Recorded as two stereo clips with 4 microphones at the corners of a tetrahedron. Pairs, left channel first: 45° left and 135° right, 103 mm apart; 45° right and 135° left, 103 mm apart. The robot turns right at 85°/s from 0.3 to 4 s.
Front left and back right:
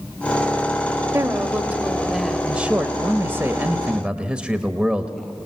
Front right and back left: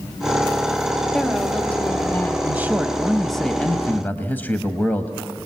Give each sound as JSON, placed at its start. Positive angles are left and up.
{"t": 1.1, "sound": "a woman speaking", "azimuth_deg": -135, "distance_m": 0.9}
{"t": 2.5, "sound": "a man speaking", "azimuth_deg": 155, "distance_m": 0.9}